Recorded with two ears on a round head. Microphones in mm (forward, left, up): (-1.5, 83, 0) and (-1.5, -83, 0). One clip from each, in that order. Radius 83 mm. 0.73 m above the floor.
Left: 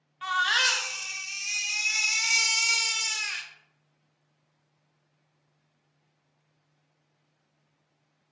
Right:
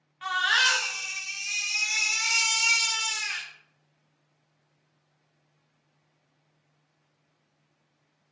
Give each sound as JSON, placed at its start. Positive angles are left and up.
{"t": 0.2, "sound": "a baby crying", "side_deg": 10, "distance_m": 0.5}